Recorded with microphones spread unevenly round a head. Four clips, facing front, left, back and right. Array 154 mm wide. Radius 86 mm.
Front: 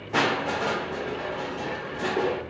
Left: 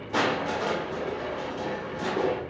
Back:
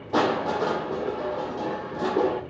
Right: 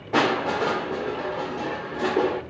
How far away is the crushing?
About 1.9 m.